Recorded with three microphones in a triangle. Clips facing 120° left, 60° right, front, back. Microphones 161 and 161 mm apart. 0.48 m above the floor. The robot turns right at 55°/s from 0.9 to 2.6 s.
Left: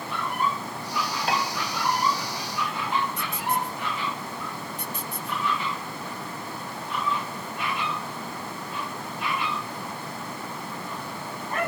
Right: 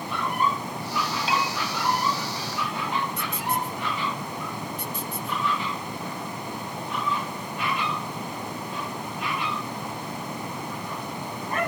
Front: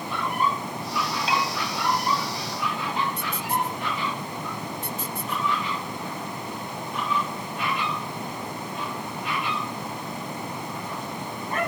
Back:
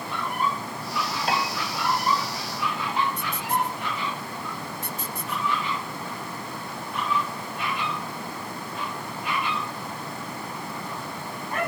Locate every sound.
1.3 s a piano: 150° left, 3 m; by 1.6 s 165° left, 3 m